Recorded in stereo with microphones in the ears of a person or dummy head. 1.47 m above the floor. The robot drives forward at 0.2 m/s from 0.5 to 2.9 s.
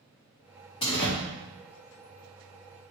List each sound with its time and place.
0.8 s a door slam: 25° left (ahead or behind), 0.8 m